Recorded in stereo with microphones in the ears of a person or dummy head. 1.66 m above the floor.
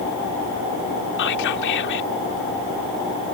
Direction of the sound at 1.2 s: 65° left (ahead or behind).